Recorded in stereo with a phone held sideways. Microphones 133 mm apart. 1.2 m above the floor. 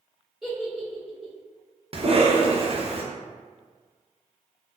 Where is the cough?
50° right (ahead or behind), 0.8 m.